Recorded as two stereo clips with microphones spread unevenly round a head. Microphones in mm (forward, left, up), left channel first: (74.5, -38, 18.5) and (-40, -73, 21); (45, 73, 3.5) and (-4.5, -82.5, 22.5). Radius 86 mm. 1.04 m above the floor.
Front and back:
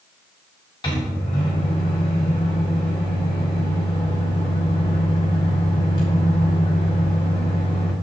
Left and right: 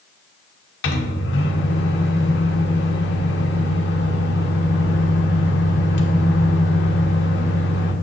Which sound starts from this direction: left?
A microwave, at 0.8 s.